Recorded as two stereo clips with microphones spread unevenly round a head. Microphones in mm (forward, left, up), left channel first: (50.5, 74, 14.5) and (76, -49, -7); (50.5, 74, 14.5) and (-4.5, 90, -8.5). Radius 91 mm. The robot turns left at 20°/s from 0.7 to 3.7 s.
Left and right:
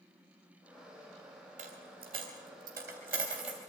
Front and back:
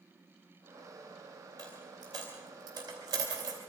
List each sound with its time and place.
1.6 s a dropped coin: 135° right, 2.5 m; by 3.6 s 175° right, 2.5 m